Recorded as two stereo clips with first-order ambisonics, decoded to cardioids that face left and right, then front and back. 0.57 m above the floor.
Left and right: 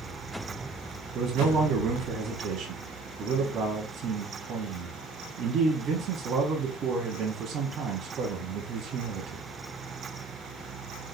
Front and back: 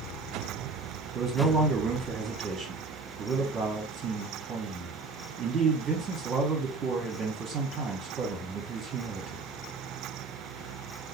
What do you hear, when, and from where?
1.1 s a man speaking: 130° right, 0.8 m